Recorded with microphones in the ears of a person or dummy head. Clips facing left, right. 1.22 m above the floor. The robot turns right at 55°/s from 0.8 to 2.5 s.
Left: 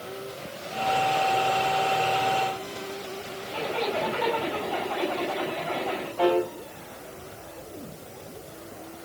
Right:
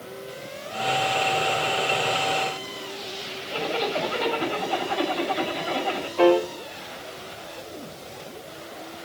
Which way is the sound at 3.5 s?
65° right (ahead or behind).